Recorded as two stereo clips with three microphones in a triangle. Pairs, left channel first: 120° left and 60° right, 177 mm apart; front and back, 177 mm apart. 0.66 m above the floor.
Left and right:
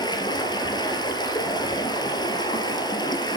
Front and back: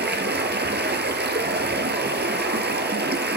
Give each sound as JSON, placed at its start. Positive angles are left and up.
{"t": 0.0, "sound": "running water", "azimuth_deg": -175, "distance_m": 1.6}